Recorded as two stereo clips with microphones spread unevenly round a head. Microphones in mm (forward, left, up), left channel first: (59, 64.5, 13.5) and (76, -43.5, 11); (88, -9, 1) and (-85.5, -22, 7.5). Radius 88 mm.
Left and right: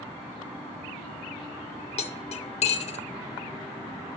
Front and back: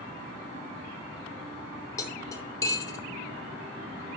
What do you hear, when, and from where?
2.0 s cutlery clinking: 80° left, 0.8 m